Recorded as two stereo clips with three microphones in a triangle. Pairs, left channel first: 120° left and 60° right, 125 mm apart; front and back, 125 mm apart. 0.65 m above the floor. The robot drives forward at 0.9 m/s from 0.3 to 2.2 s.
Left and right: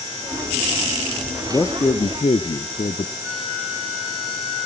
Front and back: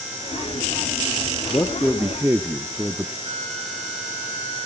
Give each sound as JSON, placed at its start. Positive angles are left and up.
{"t": 1.5, "sound": "a man speaking", "azimuth_deg": 55, "distance_m": 0.9}
{"t": 3.2, "sound": "a flute", "azimuth_deg": -150, "distance_m": 3.5}